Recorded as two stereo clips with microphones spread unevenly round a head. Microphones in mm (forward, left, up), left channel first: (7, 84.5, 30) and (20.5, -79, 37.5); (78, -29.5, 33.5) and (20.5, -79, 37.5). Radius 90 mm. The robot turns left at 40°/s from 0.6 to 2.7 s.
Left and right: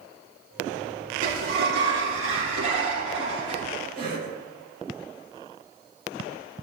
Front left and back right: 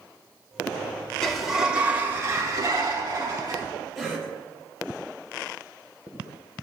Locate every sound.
1.2 s a sliding door: 45° right, 4 m; by 3.6 s 105° right, 4 m
4.0 s a cough: 50° right, 4.5 m